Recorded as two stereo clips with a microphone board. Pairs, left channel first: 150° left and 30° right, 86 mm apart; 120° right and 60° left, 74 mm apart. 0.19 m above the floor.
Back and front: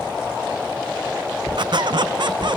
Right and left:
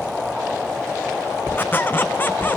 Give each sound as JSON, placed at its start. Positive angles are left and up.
{"t": 1.6, "sound": "a squeak", "azimuth_deg": -60, "distance_m": 0.6}